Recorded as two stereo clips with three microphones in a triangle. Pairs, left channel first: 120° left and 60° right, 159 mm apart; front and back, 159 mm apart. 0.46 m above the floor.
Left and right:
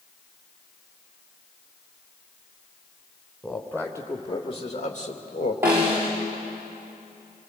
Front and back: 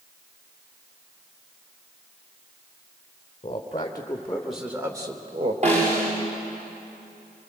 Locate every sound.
3.4 s a man speaking: 40° left, 1.7 m; by 5.5 s 140° left, 1.8 m
5.6 s a snare drum: 135° right, 7.5 m